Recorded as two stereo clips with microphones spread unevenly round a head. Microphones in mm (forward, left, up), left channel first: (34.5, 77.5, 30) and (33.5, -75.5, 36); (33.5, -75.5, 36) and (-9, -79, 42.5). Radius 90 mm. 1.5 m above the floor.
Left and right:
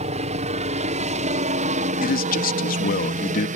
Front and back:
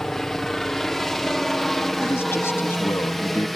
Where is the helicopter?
70° right; by 3.6 s 80° right.